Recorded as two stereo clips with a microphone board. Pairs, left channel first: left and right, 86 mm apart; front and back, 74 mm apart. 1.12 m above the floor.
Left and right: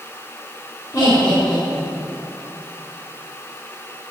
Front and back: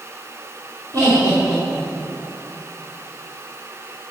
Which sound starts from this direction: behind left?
Laughter, at 0.9 s.